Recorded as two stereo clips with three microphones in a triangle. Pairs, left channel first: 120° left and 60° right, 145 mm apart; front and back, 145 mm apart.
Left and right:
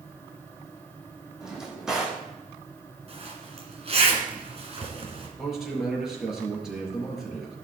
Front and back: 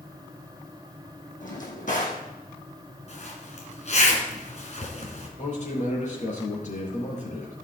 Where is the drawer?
25° left, 3 m.